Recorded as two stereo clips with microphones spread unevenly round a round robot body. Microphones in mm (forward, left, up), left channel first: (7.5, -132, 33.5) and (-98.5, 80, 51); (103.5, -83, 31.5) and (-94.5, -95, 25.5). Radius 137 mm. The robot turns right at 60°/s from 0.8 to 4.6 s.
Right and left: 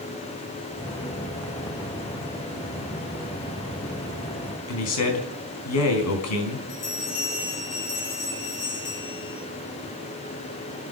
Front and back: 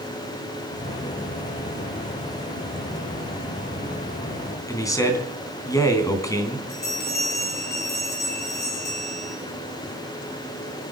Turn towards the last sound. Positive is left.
turn(degrees=-30)